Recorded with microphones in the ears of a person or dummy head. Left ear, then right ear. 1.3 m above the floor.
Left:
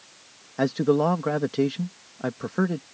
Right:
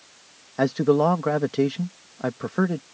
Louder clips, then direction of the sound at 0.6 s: Right 2 dB; 15° right (ahead or behind).